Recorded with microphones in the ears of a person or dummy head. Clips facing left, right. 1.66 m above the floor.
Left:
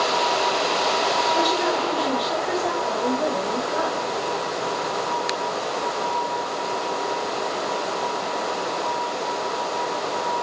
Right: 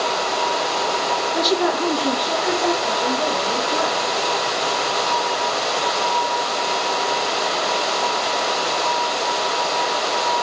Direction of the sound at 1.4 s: 20° right (ahead or behind).